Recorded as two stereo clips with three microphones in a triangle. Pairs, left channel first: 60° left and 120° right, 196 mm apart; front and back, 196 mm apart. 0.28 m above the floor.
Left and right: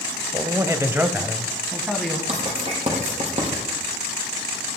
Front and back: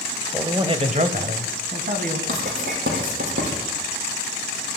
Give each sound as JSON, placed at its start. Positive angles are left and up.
{"t": 0.3, "sound": "a man speaking", "azimuth_deg": -135, "distance_m": 0.9}
{"t": 2.3, "sound": "writing", "azimuth_deg": -175, "distance_m": 6.0}